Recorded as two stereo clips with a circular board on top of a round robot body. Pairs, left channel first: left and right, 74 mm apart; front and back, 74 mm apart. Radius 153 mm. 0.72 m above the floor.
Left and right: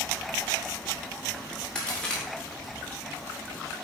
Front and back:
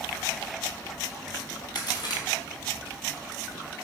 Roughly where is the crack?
Ahead.